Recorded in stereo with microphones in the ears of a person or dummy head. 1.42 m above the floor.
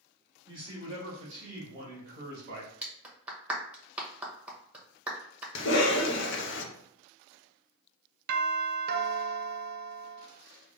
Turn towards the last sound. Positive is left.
turn(degrees=-60)  # may be behind; listen again after turning